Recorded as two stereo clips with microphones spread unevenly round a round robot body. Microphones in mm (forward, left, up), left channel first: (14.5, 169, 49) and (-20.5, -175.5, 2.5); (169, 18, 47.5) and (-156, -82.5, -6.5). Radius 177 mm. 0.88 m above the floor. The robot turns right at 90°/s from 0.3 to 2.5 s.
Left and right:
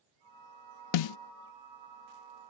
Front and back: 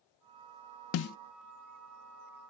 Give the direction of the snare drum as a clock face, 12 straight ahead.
10 o'clock.